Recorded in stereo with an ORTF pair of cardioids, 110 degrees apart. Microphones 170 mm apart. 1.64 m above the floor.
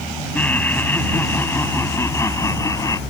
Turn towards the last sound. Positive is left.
turn(degrees=20)